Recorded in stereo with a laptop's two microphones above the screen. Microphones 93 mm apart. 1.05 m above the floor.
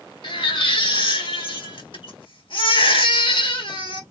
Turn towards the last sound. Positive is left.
turn(degrees=65)  # may be behind; listen again after turning